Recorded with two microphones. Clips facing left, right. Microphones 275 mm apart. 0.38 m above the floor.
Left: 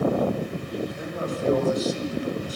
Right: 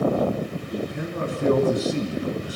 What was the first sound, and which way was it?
A man speaking, 65° right (ahead or behind).